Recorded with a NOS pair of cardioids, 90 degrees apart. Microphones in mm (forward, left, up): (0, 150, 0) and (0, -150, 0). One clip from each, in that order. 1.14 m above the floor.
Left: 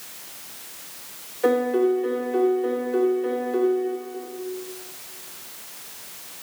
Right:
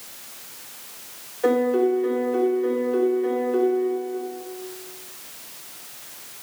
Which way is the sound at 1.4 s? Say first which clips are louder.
Even; straight ahead.